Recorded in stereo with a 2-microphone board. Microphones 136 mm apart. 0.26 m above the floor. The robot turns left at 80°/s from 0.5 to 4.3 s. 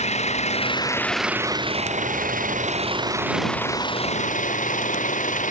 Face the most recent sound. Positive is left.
turn(degrees=110)